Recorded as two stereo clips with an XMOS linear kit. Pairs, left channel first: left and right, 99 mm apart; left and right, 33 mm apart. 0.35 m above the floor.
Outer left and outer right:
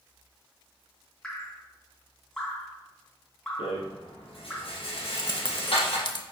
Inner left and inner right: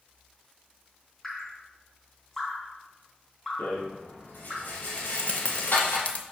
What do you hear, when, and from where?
1.2 s dripping: 10° left (ahead or behind), 3 m
3.6 s a rattle: 65° left (ahead or behind), 4 m
5.0 s keys jangling: 50° left (ahead or behind), 0.9 m